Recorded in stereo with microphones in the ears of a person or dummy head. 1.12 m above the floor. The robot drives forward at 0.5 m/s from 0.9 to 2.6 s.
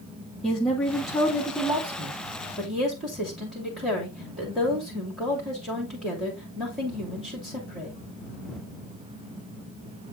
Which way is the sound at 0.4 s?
Centre (ahead or behind).